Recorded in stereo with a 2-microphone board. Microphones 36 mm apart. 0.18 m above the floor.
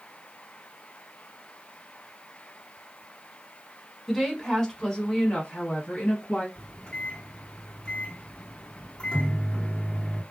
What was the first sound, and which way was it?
A woman speaking, centre (ahead or behind).